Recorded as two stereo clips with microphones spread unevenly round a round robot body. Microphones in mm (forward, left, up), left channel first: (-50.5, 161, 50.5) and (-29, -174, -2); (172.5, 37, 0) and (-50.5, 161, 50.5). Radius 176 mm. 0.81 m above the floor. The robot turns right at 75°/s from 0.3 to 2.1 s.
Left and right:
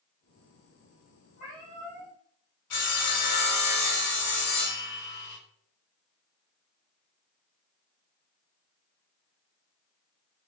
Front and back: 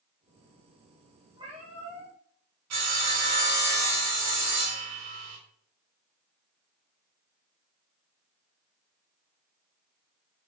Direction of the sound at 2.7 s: 135° left.